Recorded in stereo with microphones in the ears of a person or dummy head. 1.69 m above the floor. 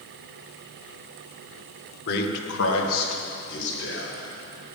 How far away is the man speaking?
About 1.8 m.